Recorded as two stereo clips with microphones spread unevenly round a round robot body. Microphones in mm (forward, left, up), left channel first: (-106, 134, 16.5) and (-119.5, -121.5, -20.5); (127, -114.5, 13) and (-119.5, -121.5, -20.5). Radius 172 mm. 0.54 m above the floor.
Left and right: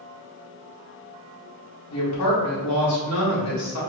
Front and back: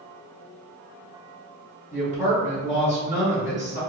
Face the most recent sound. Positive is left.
turn(degrees=105)